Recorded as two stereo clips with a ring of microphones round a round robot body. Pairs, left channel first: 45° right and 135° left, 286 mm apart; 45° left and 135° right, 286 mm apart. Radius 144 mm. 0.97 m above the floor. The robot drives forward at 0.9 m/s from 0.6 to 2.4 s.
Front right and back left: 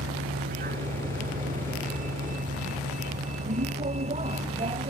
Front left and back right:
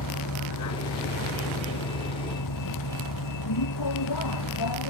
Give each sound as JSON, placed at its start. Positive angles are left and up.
{"t": 0.0, "sound": "a vehicle", "azimuth_deg": 75}